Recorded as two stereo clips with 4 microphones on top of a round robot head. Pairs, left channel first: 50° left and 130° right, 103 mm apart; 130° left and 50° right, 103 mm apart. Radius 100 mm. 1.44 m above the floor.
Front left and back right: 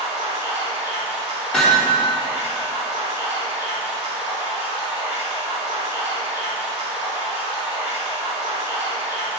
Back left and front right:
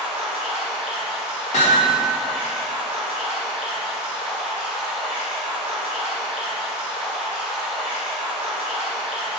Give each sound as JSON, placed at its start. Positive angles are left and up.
{"t": 0.0, "sound": "running water", "azimuth_deg": -130, "distance_m": 2.5}
{"t": 1.5, "sound": "hammering", "azimuth_deg": 130, "distance_m": 1.3}